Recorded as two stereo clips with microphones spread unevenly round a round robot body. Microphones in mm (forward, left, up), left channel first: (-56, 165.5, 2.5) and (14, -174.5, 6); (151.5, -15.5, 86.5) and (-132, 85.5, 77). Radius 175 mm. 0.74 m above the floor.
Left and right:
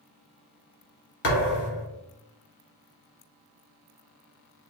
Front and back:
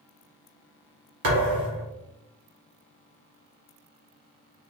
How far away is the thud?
About 1.6 m.